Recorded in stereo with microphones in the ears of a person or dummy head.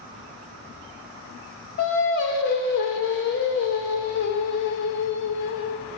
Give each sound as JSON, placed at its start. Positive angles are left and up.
{"t": 1.8, "sound": "singing", "side_deg": 55, "distance_m": 0.7}